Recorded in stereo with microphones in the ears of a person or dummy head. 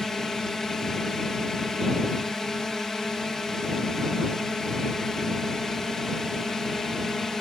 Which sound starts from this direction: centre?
A drone, at 0.0 s.